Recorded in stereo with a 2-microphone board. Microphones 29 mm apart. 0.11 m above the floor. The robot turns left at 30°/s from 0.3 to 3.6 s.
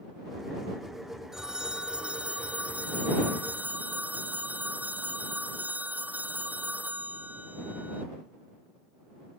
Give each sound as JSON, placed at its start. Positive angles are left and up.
{"t": 1.3, "sound": "a phone ringing", "azimuth_deg": -15}